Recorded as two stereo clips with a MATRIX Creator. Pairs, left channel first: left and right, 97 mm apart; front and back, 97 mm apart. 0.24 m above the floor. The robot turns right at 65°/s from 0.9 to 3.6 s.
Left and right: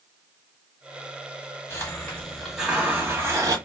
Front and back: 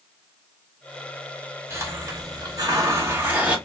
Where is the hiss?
130° left, 1.1 m; by 3.6 s 110° right, 1.1 m.